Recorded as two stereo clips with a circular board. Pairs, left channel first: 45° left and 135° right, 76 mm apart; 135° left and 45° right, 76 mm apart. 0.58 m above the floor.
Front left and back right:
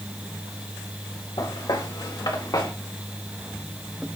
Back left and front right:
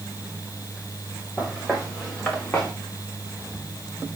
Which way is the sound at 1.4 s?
45° left.